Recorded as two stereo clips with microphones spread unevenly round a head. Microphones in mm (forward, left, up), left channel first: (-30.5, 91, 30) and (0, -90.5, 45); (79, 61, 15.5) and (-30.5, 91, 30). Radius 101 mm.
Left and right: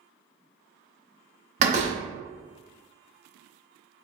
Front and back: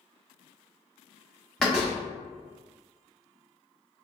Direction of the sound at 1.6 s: 110° right.